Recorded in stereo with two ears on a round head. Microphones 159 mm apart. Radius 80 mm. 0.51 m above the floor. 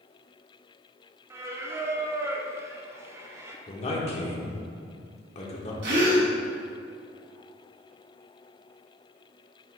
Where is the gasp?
65° right (ahead or behind), 1.7 m.